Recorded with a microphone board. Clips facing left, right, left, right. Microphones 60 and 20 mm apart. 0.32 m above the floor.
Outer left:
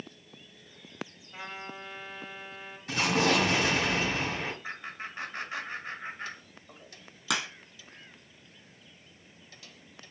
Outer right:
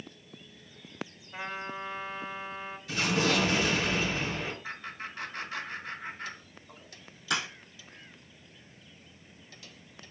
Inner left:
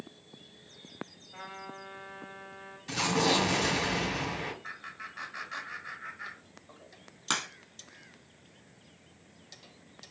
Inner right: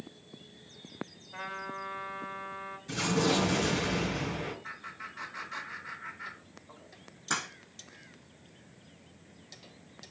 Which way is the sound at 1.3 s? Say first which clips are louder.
Outer right 4 dB, inner right 5 dB; 20° right (ahead or behind).